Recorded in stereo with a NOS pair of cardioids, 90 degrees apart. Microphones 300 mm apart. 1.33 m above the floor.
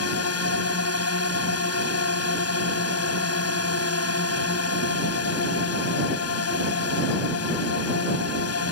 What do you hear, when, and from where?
0.0 s a drone: 55° left